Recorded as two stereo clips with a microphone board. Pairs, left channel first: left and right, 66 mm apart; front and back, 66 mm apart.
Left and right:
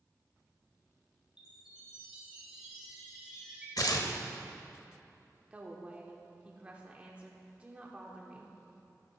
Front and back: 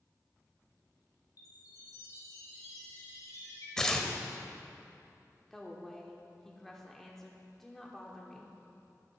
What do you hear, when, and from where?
1.4 s a chime: 15° right, 3 m
3.8 s tearing paper: 80° left, 0.8 m
5.5 s a woman speaking: 80° right, 0.8 m